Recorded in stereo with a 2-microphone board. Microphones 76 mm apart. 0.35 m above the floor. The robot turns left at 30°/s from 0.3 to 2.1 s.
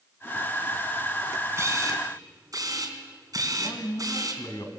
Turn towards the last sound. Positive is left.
turn(degrees=55)  # may be behind; listen again after turning